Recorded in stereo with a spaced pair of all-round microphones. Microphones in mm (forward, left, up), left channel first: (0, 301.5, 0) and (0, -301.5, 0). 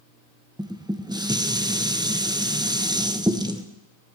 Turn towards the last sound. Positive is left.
turn(degrees=-5)  # may be behind; listen again after turning